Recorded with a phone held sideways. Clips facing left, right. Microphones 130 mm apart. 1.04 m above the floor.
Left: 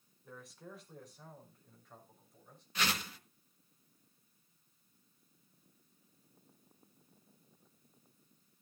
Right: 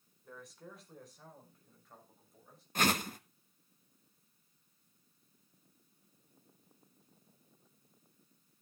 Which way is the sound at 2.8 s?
50° right (ahead or behind).